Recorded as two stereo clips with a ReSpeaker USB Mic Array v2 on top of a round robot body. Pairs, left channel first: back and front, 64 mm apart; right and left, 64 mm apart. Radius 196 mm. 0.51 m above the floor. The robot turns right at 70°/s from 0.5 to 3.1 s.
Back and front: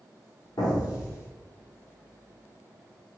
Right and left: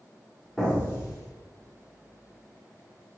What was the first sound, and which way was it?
An explosion, 170° right.